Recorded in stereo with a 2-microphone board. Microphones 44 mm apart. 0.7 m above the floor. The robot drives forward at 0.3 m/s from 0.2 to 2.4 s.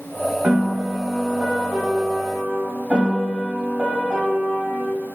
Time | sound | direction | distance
0.4 | a piano | 40° right (ahead or behind) | 0.6 m